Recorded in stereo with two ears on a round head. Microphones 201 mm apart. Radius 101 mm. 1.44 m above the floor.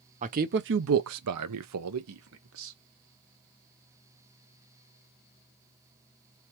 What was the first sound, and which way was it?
A man speaking, 35° right (ahead or behind).